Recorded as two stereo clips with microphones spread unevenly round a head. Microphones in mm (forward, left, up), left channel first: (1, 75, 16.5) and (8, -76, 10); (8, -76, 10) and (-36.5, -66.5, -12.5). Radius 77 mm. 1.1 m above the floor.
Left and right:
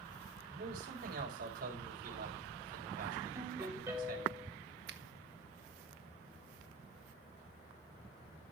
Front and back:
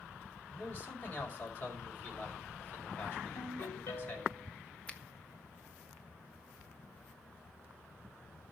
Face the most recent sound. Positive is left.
turn(degrees=-80)